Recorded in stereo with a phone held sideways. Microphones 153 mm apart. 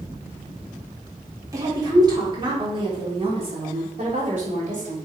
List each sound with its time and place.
1.5 s a woman speaking: 25° right (ahead or behind), 3.5 m; by 5.0 s 55° right (ahead or behind), 3.5 m